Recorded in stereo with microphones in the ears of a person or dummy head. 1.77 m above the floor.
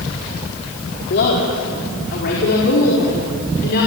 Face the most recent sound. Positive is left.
turn(degrees=55)  # may be behind; listen again after turning